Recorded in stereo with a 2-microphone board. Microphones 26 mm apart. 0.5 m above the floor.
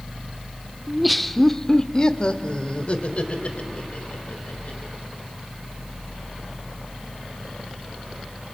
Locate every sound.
0.9 s laughter: 10° right (ahead or behind), 0.9 m; by 4.9 s 55° left (ahead or behind), 3 m